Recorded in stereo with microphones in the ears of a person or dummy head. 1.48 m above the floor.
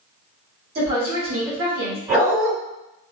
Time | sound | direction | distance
0.8 | a woman speaking | 40° right (ahead or behind) | 1.8 m
2.1 | a dog barking | 25° right (ahead or behind) | 2.0 m